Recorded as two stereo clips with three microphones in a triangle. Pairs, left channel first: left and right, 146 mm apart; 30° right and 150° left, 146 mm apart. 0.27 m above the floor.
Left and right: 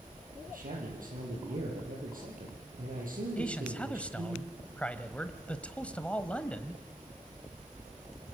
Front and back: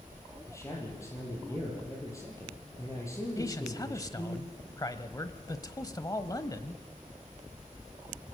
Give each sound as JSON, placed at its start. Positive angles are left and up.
{"t": 0.5, "sound": "a man speaking", "azimuth_deg": -100, "distance_m": 7.0}
{"t": 3.4, "sound": "a man speaking", "azimuth_deg": 15, "distance_m": 1.2}